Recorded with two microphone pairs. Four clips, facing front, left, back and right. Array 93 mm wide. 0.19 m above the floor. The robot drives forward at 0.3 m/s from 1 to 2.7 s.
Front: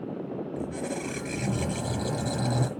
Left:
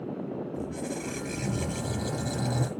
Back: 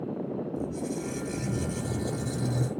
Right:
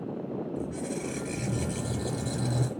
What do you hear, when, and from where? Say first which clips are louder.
0.6 s a squeak: even, even; 15° left, 2.5 m; by 2.7 s 20° left, 1.8 m